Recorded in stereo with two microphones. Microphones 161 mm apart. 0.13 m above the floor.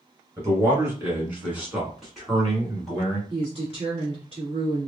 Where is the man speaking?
20° right (ahead or behind), 1.7 m; by 3.2 s 5° left (ahead or behind), 2.0 m.